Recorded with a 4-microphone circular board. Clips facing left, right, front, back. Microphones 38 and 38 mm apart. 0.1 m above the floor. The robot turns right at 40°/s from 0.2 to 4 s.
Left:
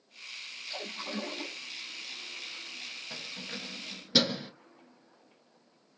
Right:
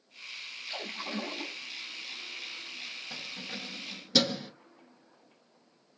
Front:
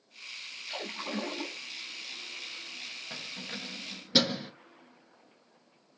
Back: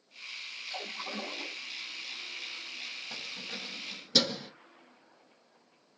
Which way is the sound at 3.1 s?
5° right.